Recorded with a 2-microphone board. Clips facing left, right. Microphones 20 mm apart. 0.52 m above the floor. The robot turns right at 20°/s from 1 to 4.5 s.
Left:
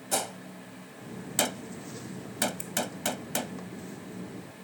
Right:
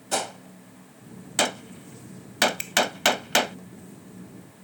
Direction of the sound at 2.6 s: 60° right (ahead or behind).